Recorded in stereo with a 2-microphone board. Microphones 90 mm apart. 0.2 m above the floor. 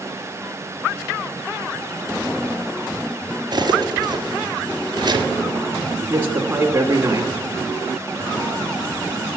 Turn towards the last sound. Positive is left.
turn(degrees=-25)  # may be behind; listen again after turning